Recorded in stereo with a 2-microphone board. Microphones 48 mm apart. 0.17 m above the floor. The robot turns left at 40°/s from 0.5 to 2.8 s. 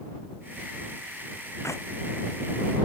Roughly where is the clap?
Left.